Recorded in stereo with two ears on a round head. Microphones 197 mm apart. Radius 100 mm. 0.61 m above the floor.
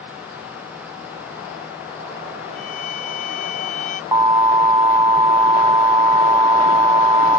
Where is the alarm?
20° right (ahead or behind).